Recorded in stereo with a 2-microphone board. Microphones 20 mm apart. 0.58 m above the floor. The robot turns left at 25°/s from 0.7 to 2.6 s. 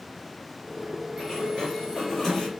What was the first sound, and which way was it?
A sliding door, 70° left.